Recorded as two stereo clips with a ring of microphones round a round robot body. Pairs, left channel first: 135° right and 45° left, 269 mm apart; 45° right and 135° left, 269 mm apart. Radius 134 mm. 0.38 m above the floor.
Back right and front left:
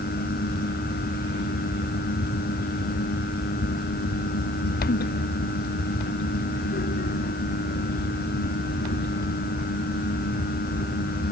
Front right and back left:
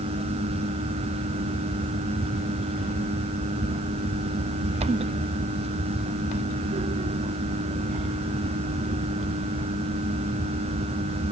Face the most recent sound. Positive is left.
No sound to turn to.